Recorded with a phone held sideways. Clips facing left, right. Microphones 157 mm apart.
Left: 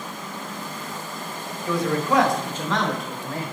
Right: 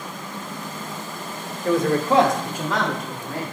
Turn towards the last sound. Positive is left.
turn(degrees=5)  # may be behind; listen again after turning